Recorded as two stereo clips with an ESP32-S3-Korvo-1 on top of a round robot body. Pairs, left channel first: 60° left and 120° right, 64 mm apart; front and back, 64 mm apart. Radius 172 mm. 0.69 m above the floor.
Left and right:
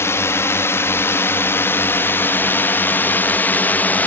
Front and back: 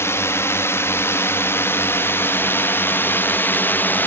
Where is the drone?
30° left; by 4.1 s 25° left.